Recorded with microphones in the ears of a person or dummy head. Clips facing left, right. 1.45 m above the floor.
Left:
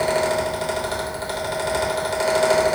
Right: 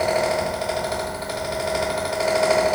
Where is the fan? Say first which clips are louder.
Even; 15° left (ahead or behind), 0.9 m.